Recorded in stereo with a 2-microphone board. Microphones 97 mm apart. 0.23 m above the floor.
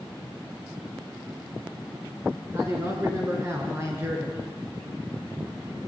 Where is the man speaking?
30° right (ahead or behind), 3 m.